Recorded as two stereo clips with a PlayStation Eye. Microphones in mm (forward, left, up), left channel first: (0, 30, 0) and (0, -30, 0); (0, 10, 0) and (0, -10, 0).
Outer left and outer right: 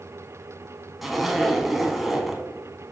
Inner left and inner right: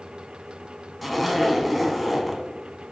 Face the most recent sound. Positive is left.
turn(degrees=0)  # may be behind; listen again after turning